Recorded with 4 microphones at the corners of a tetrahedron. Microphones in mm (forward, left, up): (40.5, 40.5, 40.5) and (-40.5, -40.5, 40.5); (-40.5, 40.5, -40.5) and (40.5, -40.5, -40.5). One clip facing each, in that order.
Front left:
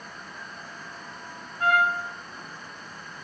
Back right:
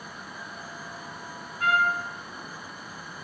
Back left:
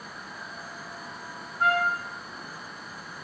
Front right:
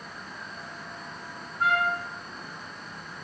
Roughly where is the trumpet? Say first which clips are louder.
Front left 2 dB, back left 1 dB; ahead left.